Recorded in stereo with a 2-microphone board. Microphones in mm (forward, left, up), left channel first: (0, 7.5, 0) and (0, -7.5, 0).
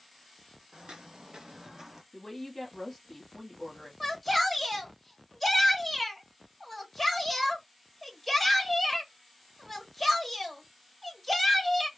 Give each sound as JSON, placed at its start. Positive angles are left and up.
{"t": 0.7, "sound": "footsteps", "side_deg": -65, "distance_m": 0.8}
{"t": 2.1, "sound": "a woman speaking", "side_deg": 20, "distance_m": 1.2}
{"t": 4.0, "sound": "a shout", "side_deg": 10, "distance_m": 1.0}